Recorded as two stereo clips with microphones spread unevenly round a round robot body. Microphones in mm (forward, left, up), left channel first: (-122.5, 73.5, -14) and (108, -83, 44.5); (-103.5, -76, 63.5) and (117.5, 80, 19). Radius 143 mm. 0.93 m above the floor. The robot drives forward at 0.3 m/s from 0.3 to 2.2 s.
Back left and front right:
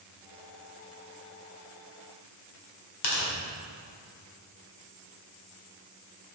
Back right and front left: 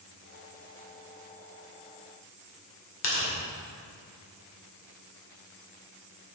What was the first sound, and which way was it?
Tearing paper, 165° left.